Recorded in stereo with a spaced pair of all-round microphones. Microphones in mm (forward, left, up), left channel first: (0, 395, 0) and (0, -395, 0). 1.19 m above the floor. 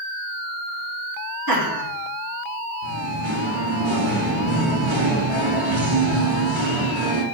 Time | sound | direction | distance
1.5 | laughter | 25° right (ahead or behind) | 3.5 m
2.8 | singing | 35° right (ahead or behind) | 2 m